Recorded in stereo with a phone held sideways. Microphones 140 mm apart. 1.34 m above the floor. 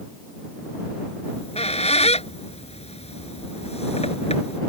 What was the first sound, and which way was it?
A squeak, 50° left (ahead or behind).